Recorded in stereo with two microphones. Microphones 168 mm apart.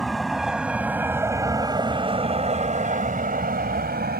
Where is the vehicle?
Centre (ahead or behind); by 4.2 s 75° right (ahead or behind).